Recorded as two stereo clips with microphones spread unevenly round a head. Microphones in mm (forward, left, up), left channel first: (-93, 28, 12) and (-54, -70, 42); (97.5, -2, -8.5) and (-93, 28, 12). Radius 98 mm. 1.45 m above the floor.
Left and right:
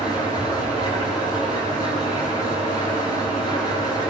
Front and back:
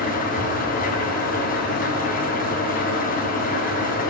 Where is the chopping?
No chopping in this recording.